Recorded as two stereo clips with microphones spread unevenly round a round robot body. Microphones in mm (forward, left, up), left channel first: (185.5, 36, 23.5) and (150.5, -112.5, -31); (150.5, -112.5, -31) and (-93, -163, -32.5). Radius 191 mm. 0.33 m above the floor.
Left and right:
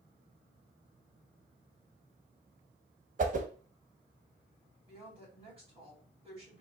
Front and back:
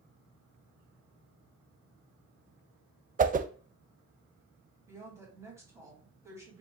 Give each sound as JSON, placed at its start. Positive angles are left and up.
{"t": 3.2, "sound": "a whoosh", "azimuth_deg": -110, "distance_m": 0.5}
{"t": 4.9, "sound": "a woman speaking", "azimuth_deg": -90, "distance_m": 2.5}